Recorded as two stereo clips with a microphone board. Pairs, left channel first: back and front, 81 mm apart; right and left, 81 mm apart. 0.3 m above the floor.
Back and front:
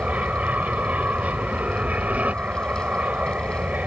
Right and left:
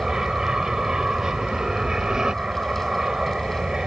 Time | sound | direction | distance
0.0 | an aircraft | 25° left | ?